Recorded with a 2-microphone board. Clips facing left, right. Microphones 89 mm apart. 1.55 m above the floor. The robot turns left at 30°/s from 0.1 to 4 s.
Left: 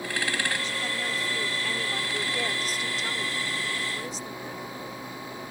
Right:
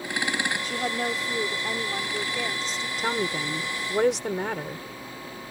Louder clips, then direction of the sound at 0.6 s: Right 4 dB; 125° right.